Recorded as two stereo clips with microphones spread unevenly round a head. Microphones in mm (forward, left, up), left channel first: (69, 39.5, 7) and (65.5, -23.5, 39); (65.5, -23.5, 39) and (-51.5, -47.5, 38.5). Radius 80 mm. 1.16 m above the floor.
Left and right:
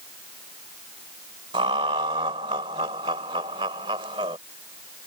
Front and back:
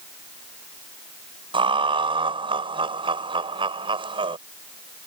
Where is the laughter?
120° right.